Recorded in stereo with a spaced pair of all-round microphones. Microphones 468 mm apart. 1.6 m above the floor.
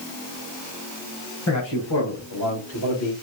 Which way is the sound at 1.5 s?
30° left (ahead or behind).